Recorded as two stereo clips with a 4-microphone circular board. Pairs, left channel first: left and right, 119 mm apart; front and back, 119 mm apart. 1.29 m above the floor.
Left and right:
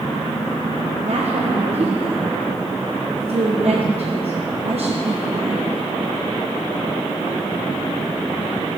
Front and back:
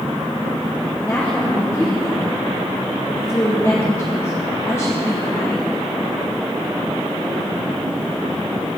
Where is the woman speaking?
65° right, 1.1 m.